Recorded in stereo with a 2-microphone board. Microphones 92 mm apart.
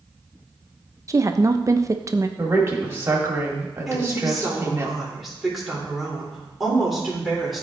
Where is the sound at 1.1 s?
35° right (ahead or behind), 0.6 m.